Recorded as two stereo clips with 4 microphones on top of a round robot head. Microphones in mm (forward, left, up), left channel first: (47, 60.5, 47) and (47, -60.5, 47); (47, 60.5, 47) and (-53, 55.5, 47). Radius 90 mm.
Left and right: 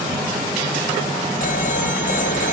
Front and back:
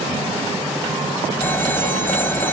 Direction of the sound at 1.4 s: 75° left.